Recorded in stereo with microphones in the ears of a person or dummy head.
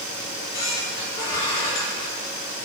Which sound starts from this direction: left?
A squeak, at 0.2 s.